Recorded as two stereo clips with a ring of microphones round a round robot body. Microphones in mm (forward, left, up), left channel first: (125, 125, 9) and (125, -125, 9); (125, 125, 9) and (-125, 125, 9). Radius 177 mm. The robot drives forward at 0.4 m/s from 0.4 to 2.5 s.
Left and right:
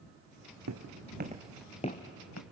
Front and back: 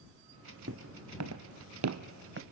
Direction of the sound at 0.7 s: 125° right.